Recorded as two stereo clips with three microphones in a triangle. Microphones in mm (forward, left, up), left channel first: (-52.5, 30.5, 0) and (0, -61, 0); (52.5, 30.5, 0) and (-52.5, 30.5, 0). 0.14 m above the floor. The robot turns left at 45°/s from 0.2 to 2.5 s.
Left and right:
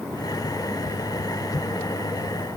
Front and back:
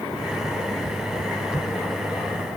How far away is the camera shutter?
I don't hear a camera shutter.